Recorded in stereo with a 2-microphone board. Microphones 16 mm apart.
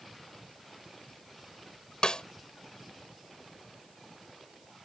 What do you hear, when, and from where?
2.0 s a snare drum: 75° left (ahead or behind)